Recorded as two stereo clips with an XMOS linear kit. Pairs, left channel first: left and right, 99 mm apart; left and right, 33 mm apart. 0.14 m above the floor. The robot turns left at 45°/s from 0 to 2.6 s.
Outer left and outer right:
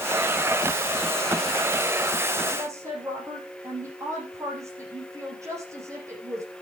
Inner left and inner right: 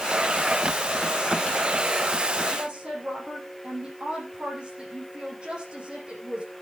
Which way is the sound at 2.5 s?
35° right (ahead or behind).